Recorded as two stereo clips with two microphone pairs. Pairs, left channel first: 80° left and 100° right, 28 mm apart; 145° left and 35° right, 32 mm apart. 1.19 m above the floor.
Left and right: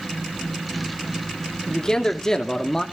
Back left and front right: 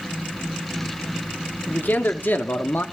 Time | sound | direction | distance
1.7 | a man speaking | 145° left | 2.5 m